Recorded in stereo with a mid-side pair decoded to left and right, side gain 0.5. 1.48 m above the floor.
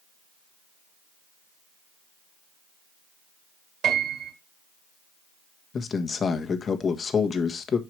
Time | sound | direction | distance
3.8 | a piano | 65° right | 3 m
5.7 | a man speaking | 40° left | 1.4 m